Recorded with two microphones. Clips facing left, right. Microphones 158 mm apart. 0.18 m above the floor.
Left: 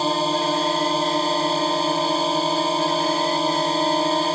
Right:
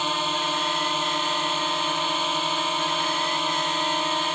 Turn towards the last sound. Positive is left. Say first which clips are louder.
# left 7 dB
turn(degrees=35)  # may be behind; listen again after turning